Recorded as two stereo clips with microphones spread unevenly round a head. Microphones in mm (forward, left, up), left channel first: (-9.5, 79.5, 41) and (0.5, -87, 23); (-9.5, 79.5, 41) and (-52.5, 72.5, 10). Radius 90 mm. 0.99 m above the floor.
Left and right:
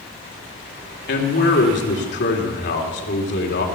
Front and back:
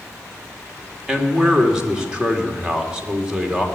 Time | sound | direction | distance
1.1 | a man speaking | 120° left | 3 m